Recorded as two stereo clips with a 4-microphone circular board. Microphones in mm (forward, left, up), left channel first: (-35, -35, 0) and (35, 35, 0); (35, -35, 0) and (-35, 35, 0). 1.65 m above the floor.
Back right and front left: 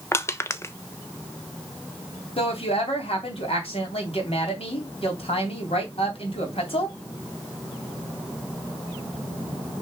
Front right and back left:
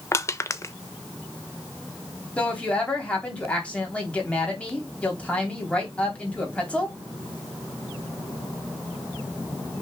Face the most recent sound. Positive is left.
turn(degrees=-125)